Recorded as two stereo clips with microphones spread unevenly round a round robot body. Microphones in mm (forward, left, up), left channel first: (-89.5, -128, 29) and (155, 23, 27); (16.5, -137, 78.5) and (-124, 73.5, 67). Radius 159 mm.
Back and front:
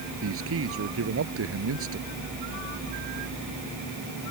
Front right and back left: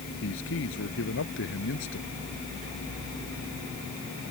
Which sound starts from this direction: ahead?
A man speaking, at 0.2 s.